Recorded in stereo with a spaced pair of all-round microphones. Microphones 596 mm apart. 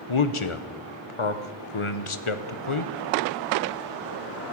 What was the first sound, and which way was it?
A man speaking, 60° left (ahead or behind).